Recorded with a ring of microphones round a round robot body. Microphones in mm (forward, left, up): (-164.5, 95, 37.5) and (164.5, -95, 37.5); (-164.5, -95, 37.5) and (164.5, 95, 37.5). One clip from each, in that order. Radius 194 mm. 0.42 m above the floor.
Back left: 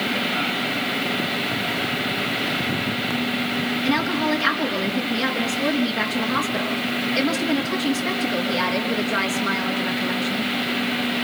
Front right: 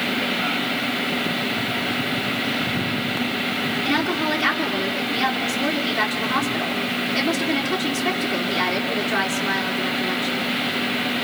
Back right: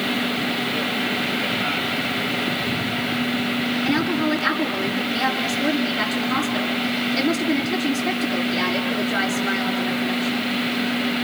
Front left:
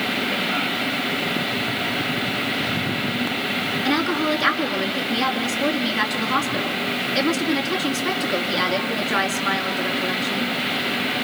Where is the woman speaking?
70° left, 5 m.